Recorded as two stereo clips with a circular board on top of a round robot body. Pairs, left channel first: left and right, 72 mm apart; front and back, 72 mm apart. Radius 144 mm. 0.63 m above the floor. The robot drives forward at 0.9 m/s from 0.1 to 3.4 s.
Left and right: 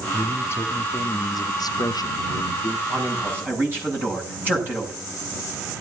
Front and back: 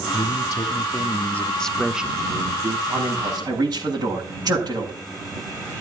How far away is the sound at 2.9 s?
About 6.5 m.